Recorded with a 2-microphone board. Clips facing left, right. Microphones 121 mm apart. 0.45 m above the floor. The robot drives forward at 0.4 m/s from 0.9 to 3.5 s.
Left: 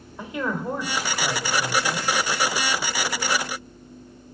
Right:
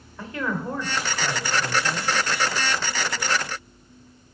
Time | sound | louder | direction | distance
0.2 | a woman speaking | left 1 dB | 15° left (ahead or behind) | 1.2 m